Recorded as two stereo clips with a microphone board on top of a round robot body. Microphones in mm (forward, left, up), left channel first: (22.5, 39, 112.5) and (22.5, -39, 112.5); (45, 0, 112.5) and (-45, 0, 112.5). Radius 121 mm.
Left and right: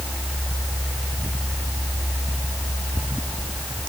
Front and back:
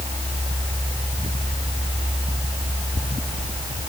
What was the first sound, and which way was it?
Only background noise.